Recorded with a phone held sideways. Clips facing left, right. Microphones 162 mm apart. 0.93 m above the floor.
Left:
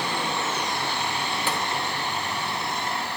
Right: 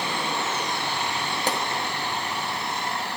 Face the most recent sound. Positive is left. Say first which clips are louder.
# right 3 dB
turn(degrees=-40)  # may be behind; listen again after turning